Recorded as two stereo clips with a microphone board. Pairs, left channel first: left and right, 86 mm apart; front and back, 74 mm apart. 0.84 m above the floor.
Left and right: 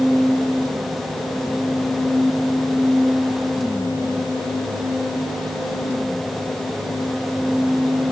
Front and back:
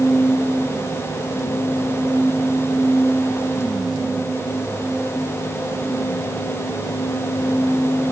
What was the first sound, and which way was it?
Only background noise.